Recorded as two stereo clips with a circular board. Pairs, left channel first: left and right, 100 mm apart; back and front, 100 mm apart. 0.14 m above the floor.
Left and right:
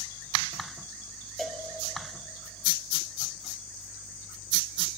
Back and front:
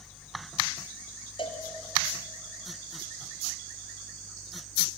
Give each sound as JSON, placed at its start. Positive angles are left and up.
{"t": 1.4, "sound": "a cowbell", "azimuth_deg": 175, "distance_m": 2.0}